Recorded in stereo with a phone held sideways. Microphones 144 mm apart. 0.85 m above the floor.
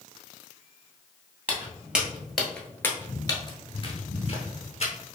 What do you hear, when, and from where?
1.5 s footsteps: 10° right (ahead or behind), 1.3 m; by 4.9 s 45° left (ahead or behind), 1.4 m